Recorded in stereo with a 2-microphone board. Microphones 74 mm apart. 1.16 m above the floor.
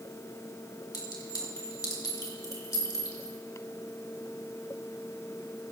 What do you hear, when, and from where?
0.9 s a clink: 60° left (ahead or behind), 2 m